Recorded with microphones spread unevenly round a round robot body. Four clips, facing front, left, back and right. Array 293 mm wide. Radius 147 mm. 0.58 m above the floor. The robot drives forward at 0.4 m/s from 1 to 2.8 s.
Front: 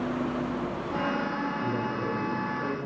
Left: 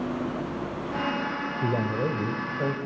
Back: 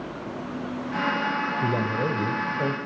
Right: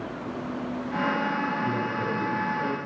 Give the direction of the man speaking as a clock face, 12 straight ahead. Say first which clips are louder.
Left 1 dB, back 4 dB; 8 o'clock.